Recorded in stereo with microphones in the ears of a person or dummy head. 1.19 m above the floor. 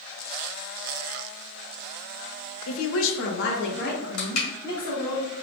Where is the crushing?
75° left (ahead or behind), 1.8 m.